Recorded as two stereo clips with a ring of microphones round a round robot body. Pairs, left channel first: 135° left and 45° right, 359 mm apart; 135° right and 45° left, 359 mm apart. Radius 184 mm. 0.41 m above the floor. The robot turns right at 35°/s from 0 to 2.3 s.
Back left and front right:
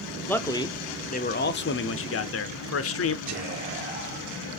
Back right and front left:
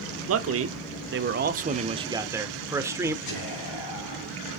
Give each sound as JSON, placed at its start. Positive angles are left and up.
{"t": 0.3, "sound": "a man speaking", "azimuth_deg": 50, "distance_m": 0.9}
{"t": 3.3, "sound": "whispering", "azimuth_deg": -110, "distance_m": 2.5}